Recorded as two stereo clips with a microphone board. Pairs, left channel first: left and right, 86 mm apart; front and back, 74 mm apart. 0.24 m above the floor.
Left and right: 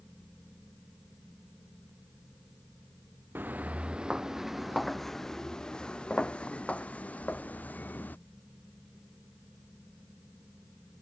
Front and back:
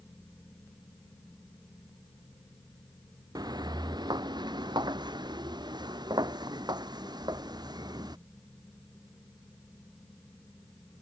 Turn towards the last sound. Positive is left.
turn(degrees=160)